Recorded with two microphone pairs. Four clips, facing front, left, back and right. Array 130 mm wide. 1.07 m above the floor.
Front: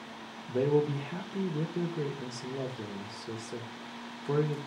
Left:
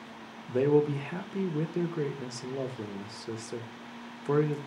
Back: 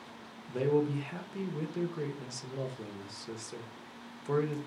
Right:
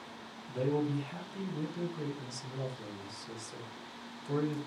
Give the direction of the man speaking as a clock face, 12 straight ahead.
9 o'clock.